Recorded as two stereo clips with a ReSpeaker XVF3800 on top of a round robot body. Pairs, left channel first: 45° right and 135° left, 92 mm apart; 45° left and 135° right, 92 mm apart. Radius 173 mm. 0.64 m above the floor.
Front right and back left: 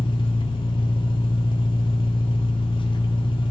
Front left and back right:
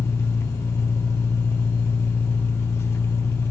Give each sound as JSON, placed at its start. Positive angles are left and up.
{"t": 0.0, "sound": "an engine running", "azimuth_deg": -15, "distance_m": 1.1}